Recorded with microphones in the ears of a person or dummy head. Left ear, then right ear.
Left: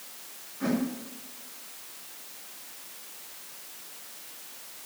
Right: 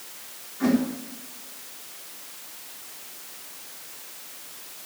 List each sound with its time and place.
0.6 s a whoosh: 85° right, 4 m